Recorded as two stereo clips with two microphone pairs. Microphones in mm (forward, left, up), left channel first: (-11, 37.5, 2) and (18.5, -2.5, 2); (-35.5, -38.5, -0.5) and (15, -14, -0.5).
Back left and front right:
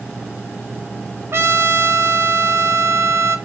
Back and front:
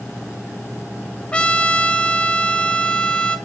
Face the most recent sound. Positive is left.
turn(degrees=-85)